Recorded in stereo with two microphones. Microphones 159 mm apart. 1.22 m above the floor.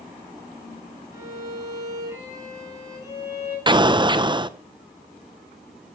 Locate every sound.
1.1 s a violin: 20° right (ahead or behind), 7.5 m
3.7 s an explosion: 30° right (ahead or behind), 0.5 m